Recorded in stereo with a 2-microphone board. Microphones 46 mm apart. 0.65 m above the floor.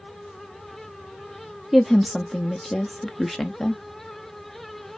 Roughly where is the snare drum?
No snare drum in this recording.